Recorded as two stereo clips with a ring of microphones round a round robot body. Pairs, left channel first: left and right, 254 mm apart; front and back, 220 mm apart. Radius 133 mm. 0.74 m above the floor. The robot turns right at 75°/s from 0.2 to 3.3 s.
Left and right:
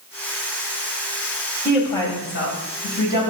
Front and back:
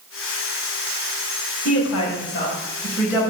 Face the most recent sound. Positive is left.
turn(degrees=110)